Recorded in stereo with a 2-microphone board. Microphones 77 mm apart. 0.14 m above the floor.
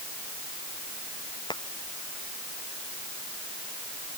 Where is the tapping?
80° left.